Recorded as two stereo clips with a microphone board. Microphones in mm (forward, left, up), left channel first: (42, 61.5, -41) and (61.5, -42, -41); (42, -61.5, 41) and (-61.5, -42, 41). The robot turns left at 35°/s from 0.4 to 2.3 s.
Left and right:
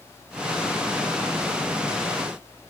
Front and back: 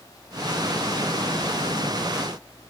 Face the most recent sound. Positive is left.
No sound to turn to.